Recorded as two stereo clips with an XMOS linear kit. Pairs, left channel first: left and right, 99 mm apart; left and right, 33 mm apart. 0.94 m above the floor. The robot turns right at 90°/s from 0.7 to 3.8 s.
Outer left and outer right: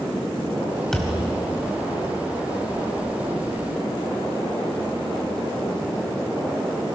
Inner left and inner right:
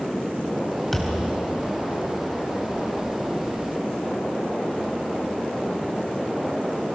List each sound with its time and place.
0.9 s a thud: 175° left, 2.5 m; by 1.3 s 150° right, 2.5 m